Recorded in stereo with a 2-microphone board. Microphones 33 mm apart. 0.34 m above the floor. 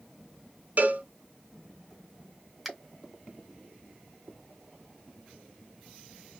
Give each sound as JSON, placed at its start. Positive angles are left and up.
{"t": 0.8, "sound": "a cowbell", "side_deg": -55, "distance_m": 0.7}
{"t": 2.6, "sound": "a finger snap", "side_deg": 0, "distance_m": 1.7}